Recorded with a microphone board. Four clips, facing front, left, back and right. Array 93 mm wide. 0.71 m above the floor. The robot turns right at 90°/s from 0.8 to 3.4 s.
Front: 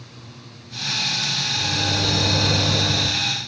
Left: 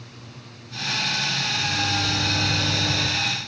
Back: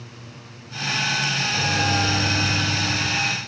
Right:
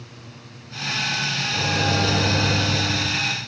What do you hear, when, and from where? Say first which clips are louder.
1.5 s a microwave: right 5 dB, back 3 dB; 115° right, 2.5 m; by 3.1 s 30° left, 2.5 m